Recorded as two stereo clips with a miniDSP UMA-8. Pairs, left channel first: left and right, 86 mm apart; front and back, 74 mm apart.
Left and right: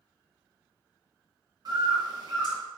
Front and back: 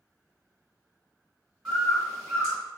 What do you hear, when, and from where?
1.6 s a bird: 95° right, 1.7 m